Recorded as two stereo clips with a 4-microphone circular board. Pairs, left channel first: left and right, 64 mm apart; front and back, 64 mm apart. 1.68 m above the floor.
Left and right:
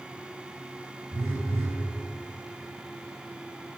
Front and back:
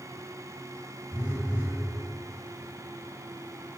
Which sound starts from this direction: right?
A phone buzzing, at 1.1 s.